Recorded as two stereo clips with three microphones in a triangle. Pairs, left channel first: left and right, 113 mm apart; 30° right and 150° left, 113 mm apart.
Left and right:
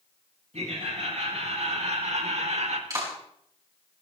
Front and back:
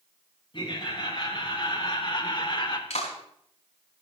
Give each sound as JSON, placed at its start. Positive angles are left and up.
{"t": 0.5, "sound": "laughter", "azimuth_deg": -75, "distance_m": 4.5}
{"t": 2.9, "sound": "a clap", "azimuth_deg": -30, "distance_m": 5.0}